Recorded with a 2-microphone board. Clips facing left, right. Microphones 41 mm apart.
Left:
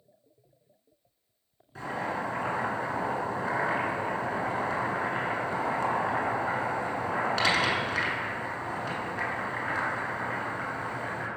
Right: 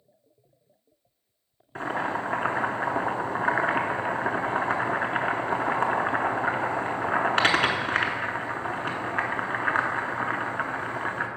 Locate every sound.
1.8 s boiling: 50° right (ahead or behind), 0.7 m